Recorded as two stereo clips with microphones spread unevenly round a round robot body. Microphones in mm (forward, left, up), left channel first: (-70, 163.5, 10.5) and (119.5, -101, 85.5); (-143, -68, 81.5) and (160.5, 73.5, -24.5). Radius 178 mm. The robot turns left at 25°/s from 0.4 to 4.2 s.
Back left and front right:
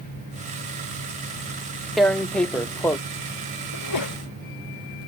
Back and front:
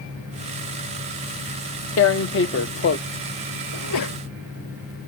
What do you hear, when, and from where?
2.0 s tearing paper: 175° left; by 3.0 s 150° left
3.7 s a sneeze: 170° left; by 4.2 s 155° left